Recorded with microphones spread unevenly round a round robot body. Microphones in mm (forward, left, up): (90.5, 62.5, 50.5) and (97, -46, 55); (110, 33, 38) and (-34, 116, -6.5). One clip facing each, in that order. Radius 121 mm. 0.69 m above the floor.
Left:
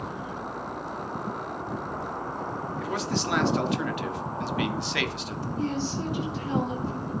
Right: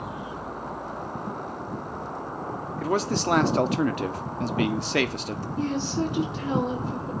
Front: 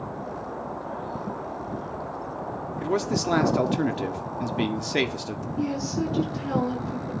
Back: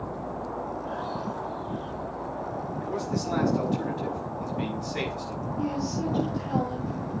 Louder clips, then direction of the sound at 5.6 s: Right 3 dB, front 2 dB; 65° right.